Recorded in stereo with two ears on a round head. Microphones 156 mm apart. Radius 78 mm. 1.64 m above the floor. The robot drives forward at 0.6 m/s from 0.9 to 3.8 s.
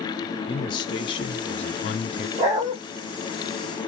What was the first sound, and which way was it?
A man speaking, 25° left (ahead or behind).